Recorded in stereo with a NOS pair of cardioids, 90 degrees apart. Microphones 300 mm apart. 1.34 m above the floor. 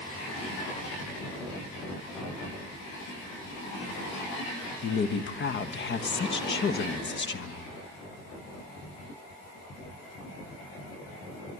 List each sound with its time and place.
4.8 s a woman speaking: 35° left, 1.3 m